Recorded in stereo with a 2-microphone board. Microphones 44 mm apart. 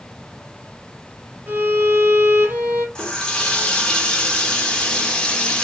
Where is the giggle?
I don't hear a giggle.